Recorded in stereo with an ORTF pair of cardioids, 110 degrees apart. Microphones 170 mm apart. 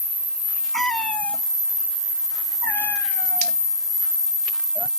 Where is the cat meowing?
5° left; by 4.9 s 20° left.